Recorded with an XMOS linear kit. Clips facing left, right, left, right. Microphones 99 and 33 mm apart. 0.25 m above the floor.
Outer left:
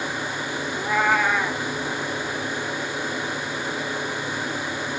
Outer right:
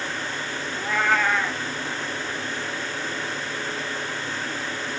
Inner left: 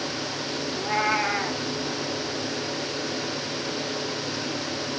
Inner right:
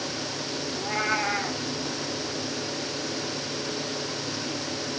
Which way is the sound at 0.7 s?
10° left (ahead or behind).